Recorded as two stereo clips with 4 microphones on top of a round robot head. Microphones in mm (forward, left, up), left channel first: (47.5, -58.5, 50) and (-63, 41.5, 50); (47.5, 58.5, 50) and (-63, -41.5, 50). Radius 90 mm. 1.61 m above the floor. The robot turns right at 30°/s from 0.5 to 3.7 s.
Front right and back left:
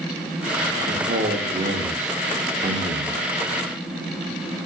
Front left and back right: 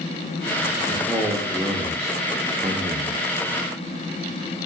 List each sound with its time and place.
0.9 s a man speaking: 120° left, 0.5 m; by 3.2 s 170° right, 0.5 m